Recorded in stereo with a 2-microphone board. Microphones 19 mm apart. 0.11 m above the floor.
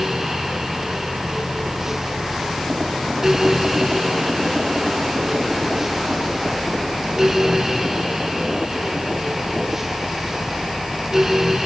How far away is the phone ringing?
No phone ringing in this recording.